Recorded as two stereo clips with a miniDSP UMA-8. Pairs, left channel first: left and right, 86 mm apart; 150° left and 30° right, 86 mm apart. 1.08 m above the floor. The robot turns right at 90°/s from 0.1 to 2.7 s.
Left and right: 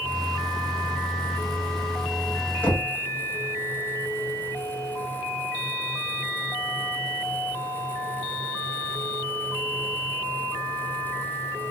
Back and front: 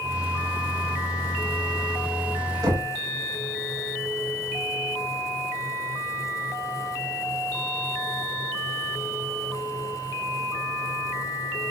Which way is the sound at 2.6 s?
15° left.